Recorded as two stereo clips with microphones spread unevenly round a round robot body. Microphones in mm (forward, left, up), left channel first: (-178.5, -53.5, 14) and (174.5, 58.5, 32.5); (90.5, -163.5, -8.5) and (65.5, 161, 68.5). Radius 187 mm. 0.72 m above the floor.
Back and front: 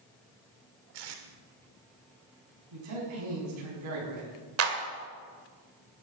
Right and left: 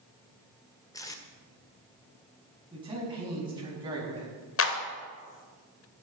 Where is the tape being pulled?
10° right, 1.8 m.